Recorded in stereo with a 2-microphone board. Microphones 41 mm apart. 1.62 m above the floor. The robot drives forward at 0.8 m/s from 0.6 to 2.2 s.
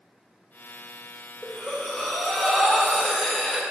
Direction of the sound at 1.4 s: 5° left (ahead or behind).